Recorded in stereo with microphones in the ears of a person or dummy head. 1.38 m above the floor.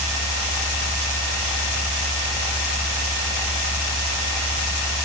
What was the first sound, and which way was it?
Only background noise.